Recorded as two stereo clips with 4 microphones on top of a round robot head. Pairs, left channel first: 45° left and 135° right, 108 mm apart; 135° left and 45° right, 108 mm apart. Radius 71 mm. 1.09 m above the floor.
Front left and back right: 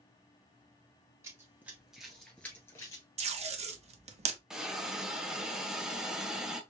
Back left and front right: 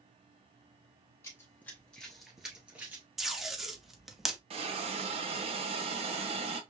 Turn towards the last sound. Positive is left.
turn(degrees=-50)